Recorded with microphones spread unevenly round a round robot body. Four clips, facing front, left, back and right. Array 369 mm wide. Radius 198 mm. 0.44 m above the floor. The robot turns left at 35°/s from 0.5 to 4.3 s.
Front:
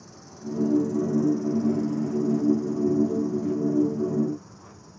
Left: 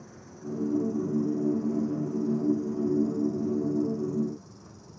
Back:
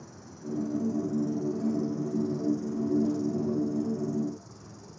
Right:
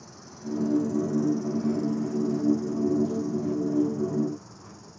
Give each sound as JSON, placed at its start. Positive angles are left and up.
{"t": 0.0, "sound": "an insect", "azimuth_deg": -70, "distance_m": 1.8}